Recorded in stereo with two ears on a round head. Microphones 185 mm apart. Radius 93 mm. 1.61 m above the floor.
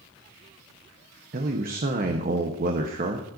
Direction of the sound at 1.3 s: 45° right (ahead or behind).